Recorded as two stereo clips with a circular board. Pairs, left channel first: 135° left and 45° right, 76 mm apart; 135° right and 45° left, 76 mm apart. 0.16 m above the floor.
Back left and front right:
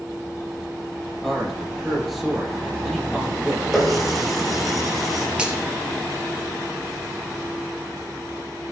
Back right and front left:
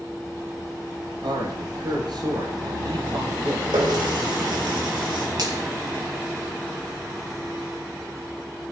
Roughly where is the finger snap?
Ahead left.